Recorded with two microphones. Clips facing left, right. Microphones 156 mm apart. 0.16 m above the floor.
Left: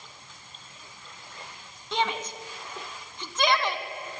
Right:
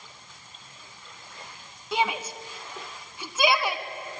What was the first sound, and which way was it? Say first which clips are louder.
A shout: right 1 dB; 10° right (ahead or behind).